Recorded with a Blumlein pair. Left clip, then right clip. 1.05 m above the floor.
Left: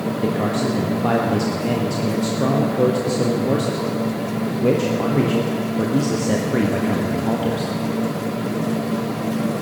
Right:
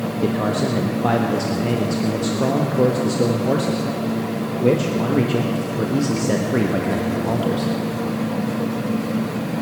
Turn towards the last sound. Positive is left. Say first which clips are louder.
# right 1 dB
turn(degrees=-5)